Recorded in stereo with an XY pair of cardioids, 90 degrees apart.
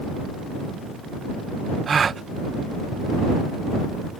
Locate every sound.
1.9 s a gasp: 45° right